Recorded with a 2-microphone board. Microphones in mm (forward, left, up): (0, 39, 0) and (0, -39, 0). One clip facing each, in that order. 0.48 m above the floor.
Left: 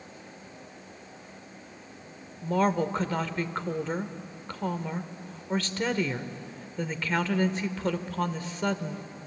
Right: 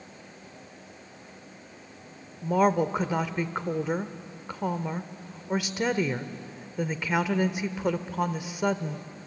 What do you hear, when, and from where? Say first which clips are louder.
2.4 s a woman speaking: right 3 dB; 10° right (ahead or behind), 1.1 m